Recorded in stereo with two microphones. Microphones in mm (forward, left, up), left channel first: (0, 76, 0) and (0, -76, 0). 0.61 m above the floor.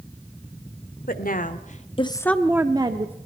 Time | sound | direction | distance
1.1 | a woman speaking | 70° left (ahead or behind) | 1.6 m